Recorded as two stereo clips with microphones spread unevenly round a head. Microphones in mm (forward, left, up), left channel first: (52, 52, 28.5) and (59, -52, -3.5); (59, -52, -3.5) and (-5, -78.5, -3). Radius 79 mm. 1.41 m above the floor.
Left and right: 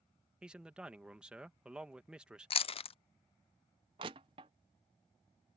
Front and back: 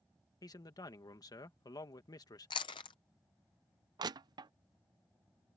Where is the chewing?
60° left.